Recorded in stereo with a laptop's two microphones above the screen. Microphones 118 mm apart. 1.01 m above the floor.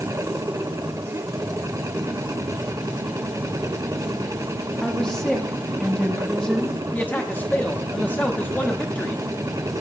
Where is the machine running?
30° right (ahead or behind), 0.7 m.